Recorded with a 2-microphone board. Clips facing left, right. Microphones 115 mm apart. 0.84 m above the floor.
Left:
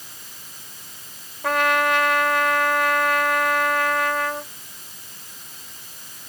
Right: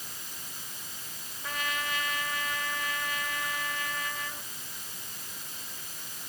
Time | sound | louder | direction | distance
1.4 | a trumpet | left 15 dB | 75° left (ahead or behind) | ?